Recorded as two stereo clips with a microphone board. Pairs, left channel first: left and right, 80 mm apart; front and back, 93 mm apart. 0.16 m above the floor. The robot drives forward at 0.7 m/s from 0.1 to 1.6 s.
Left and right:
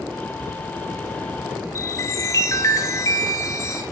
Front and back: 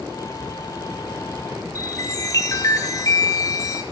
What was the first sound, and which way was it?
A chime, 45° left.